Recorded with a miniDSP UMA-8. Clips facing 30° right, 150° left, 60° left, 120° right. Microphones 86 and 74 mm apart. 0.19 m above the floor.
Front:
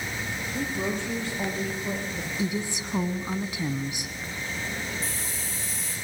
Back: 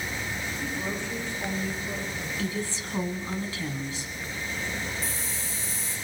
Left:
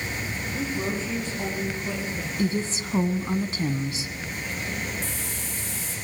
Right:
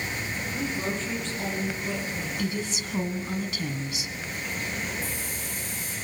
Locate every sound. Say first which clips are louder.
0.5 s a woman speaking: front 6 dB, left 2 dB; 20° right, 6 m
2.4 s a woman speaking: front 3 dB, left 7 dB; 30° left, 1.3 m
5.0 s a hiss: even, even; 60° left, 6.5 m